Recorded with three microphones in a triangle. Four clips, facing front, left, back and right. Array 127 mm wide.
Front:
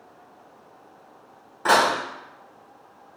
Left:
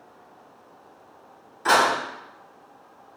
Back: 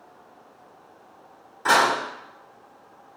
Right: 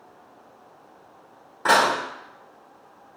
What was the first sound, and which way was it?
Dishes clattering, 65° right.